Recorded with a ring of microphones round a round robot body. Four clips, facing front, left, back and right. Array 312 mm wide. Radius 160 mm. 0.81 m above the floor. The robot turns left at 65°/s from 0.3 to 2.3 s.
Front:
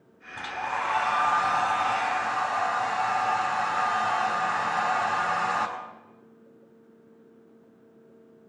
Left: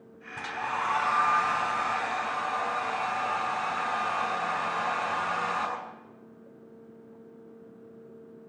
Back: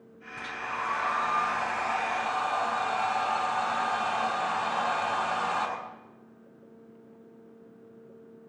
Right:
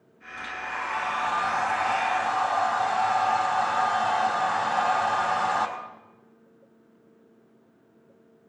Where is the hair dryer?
40° left, 3.5 m; by 5.7 s 85° right, 3.5 m.